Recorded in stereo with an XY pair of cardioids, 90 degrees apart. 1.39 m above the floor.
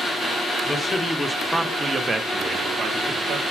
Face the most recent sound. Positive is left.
turn(degrees=-75)